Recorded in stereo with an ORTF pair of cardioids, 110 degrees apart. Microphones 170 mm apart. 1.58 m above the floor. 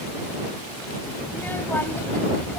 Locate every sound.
1.3 s a child speaking: 15° left; by 2.6 s 5° left